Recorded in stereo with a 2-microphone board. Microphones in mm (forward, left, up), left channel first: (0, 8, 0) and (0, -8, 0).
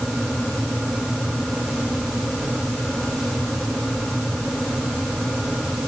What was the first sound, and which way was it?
Only background noise.